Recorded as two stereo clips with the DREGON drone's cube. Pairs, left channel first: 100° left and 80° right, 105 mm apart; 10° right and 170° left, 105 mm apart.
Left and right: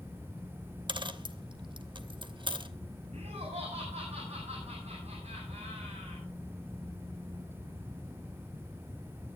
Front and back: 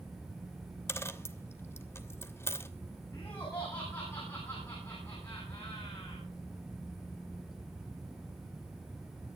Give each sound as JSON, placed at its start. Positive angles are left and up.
{"t": 0.9, "sound": "a dropped coin", "azimuth_deg": -70, "distance_m": 1.0}
{"t": 3.1, "sound": "laughter", "azimuth_deg": -70, "distance_m": 9.0}